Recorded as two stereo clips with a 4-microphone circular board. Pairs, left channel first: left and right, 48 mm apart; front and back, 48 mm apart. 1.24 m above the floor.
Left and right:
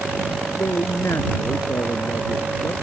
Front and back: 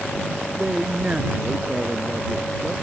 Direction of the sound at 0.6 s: 115° left.